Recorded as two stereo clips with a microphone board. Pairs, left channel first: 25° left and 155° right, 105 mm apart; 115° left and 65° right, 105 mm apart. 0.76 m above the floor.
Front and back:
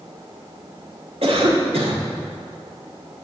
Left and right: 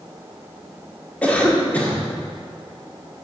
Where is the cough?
170° right, 1.9 m.